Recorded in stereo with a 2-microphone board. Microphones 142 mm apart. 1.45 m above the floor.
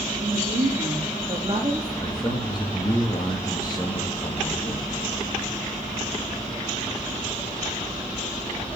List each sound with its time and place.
0.2 s a woman speaking: 55° right (ahead or behind), 3 m; by 1.9 s 30° right (ahead or behind), 2.5 m
2.0 s a man speaking: 30° left (ahead or behind), 2.5 m